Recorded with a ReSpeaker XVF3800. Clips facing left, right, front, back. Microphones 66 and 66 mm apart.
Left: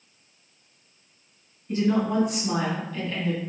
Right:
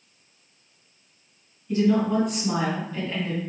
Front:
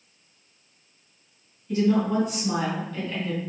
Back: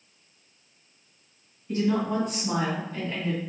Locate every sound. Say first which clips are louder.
1.7 s a woman speaking: right 2 dB, front 3 dB; 145° left, 1.8 m; by 3.4 s 130° right, 1.5 m